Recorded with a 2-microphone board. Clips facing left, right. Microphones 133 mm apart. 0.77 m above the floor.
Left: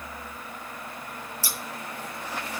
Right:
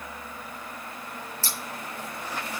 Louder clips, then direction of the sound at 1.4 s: Even; 15° left (ahead or behind).